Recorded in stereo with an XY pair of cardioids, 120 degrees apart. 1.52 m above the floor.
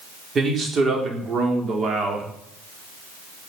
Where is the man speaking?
40° right, 4.5 m; by 2.3 s 50° right, 4 m.